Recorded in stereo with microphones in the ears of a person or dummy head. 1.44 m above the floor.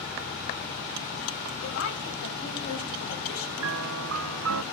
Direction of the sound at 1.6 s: 75° left (ahead or behind).